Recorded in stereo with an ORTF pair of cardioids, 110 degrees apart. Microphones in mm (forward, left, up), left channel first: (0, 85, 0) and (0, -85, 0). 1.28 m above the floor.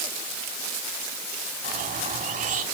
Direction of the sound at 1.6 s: 50° right.